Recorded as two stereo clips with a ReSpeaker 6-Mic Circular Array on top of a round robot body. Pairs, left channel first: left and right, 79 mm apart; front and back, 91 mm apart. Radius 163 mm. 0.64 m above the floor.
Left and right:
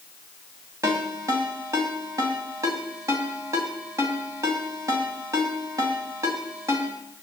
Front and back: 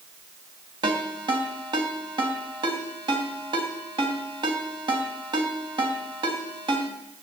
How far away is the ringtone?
About 3 m.